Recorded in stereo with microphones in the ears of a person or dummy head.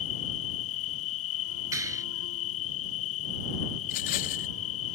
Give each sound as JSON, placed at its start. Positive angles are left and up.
{"t": 0.0, "sound": "an insect", "side_deg": 80}
{"t": 1.7, "sound": "a clap", "side_deg": -15}
{"t": 3.8, "sound": "a rattle", "side_deg": 45}